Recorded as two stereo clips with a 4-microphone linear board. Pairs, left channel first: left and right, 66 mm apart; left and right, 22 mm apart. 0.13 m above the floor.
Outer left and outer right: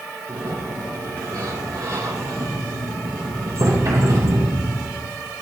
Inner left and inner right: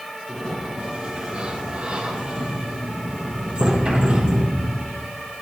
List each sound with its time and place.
0.3 s a sliding door: 55° right (ahead or behind), 3 m